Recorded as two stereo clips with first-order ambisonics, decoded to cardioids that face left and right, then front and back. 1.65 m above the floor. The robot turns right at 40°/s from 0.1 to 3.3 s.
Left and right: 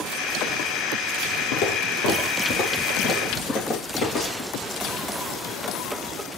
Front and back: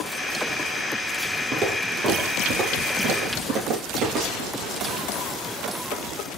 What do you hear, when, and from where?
1.5 s footsteps: 100° left, 3 m; by 4.5 s 140° left, 5 m